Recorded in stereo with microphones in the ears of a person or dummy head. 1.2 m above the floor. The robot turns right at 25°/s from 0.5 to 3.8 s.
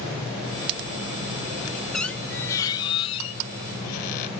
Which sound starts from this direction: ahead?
A squeak, at 1.9 s.